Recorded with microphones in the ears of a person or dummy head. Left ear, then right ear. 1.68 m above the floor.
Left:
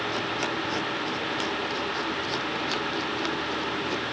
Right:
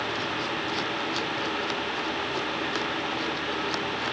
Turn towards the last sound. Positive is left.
No sound to turn to.